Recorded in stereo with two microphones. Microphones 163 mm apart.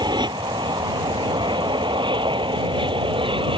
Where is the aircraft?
25° right (ahead or behind); by 3.6 s 30° right (ahead or behind).